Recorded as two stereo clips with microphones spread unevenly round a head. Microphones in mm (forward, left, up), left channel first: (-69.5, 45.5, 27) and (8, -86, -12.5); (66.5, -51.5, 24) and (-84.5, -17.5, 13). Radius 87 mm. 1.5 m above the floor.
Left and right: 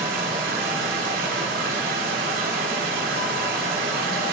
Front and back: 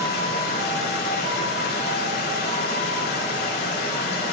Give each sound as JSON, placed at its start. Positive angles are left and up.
{"t": 0.0, "sound": "running water", "azimuth_deg": -15, "distance_m": 5.0}